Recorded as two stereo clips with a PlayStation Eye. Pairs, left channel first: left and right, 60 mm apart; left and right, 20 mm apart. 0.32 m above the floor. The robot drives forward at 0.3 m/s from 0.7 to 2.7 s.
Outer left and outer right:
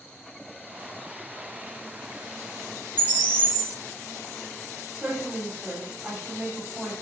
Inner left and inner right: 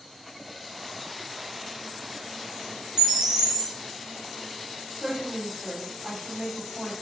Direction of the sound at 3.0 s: 30° right (ahead or behind).